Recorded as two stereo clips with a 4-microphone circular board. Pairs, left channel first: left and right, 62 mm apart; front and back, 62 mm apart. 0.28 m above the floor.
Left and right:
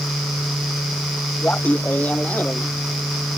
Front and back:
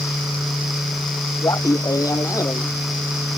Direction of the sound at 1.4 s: 25° left.